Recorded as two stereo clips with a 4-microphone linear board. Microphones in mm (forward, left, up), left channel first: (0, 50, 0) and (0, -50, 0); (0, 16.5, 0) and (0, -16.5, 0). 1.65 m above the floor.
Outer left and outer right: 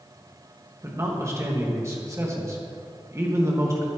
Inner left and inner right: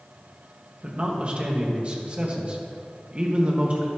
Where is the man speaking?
30° right (ahead or behind), 2 m.